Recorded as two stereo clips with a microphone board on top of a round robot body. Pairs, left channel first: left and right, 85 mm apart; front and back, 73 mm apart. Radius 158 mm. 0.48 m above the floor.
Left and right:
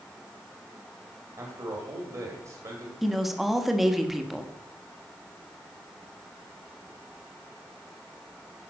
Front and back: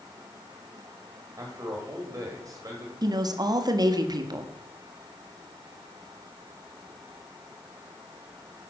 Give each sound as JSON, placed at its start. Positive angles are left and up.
{"t": 1.4, "sound": "a man speaking", "azimuth_deg": -135, "distance_m": 1.9}
{"t": 3.0, "sound": "a woman speaking", "azimuth_deg": 180, "distance_m": 1.2}